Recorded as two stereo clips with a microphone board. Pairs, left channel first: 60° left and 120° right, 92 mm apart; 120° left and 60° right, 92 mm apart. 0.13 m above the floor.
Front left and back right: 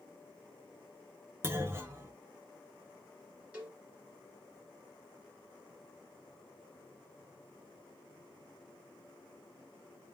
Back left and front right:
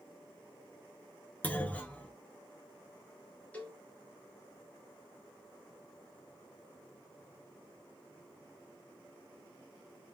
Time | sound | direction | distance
1.4 | a clunk | 175° right | 0.6 m
3.5 | a cowbell | 175° left | 1.4 m